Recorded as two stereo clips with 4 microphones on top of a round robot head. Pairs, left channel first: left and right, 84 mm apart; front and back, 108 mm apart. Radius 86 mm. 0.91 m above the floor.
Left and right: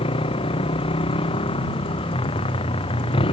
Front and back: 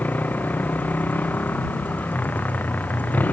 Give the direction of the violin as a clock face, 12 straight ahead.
I don't hear a violin.